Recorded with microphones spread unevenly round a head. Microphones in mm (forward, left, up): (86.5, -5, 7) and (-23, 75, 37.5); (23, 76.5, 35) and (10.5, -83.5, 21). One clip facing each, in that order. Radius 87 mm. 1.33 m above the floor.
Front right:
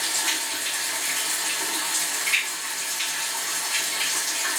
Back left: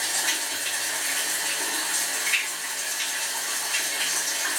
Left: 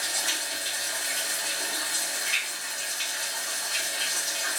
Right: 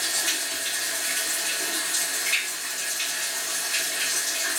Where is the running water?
170° right, 1.2 m.